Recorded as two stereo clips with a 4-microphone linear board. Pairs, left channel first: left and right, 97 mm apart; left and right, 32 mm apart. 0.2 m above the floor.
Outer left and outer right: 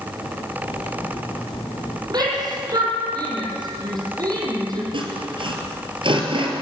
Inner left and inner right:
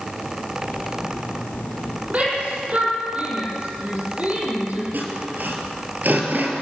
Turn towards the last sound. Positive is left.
turn(degrees=-55)  # may be behind; listen again after turning